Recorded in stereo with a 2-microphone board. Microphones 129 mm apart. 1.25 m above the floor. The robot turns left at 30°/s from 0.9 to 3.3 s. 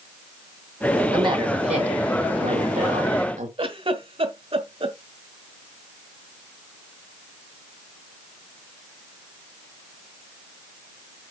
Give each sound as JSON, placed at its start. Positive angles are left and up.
{"t": 1.1, "sound": "a woman speaking", "azimuth_deg": -40, "distance_m": 2.5}
{"t": 3.6, "sound": "a giggle", "side_deg": -45, "distance_m": 1.3}